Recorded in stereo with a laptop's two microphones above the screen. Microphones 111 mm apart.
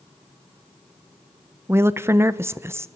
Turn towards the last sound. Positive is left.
turn(degrees=-20)  # may be behind; listen again after turning